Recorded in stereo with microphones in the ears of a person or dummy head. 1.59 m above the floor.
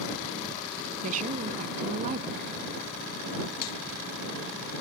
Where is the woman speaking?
45° right (ahead or behind).